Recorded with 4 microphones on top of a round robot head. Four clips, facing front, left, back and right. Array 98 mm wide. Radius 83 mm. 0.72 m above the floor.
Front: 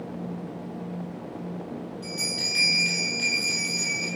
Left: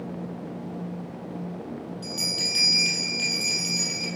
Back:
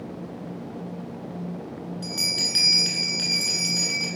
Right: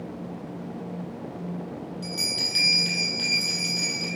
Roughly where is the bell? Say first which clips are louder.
Even, back 1 dB; behind.